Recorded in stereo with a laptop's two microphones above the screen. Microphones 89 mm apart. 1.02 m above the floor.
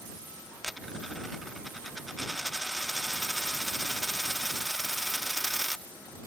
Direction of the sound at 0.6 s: Centre (ahead or behind).